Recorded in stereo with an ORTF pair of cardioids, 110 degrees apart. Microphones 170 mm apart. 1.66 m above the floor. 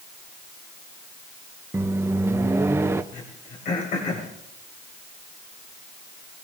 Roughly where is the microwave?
Ahead.